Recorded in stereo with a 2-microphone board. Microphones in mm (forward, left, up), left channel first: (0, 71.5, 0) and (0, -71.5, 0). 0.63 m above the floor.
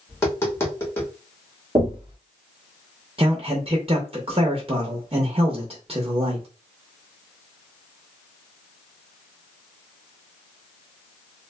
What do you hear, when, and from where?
0.1 s tapping: 15° left (ahead or behind), 1.2 m
1.8 s knocking: 40° right (ahead or behind), 1.2 m
3.2 s a man speaking: 40° right (ahead or behind), 0.7 m